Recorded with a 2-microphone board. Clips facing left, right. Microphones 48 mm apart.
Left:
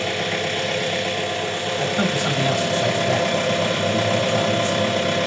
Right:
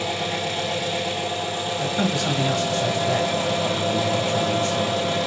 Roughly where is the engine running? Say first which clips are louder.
Left 2 dB; left.